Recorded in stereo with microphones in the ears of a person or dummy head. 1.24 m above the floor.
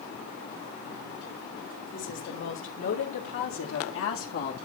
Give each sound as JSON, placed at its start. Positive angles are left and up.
{"t": 1.9, "sound": "a woman speaking", "side_deg": 60, "distance_m": 4.0}